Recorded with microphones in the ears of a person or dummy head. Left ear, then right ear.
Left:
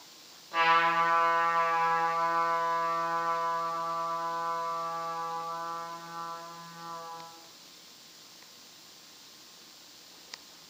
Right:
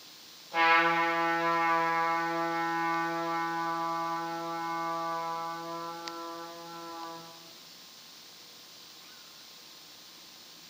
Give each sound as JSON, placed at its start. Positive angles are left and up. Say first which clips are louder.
{"t": 0.5, "sound": "a trumpet", "louder": "even", "side_deg": 55, "distance_m": 1.5}